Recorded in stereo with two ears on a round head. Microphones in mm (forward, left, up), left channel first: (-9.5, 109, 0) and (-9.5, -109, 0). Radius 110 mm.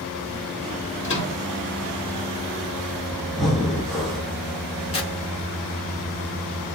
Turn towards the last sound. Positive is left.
turn(degrees=25)  # may be behind; listen again after turning